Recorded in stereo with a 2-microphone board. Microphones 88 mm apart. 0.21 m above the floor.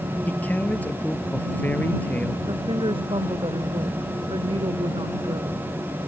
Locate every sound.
0.3 s a man speaking: 15° left (ahead or behind)
2.5 s a woman speaking: 70° right (ahead or behind)